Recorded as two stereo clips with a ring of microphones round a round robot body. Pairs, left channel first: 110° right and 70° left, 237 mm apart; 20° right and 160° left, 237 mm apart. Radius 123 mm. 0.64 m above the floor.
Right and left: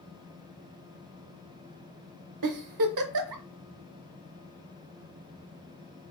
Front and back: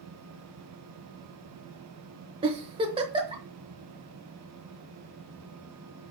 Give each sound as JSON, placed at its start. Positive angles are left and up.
{"t": 2.4, "sound": "a giggle", "azimuth_deg": 85, "distance_m": 0.8}